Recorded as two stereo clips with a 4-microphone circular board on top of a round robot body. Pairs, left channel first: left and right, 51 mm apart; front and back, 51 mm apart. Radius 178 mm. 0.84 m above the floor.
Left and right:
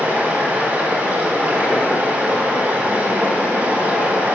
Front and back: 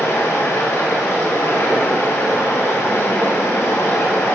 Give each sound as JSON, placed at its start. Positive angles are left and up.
{"t": 0.0, "sound": "running water", "azimuth_deg": -30, "distance_m": 5.0}